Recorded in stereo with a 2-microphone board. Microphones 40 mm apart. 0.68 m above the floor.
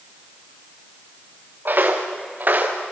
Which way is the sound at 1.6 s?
50° right (ahead or behind).